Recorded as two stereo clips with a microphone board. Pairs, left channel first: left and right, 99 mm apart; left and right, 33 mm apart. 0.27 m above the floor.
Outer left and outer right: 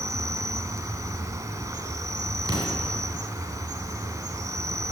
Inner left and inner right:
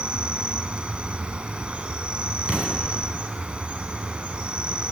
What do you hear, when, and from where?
0.0 s an insect: 35° right (ahead or behind), 0.9 m
2.5 s an explosion: 40° right (ahead or behind), 2 m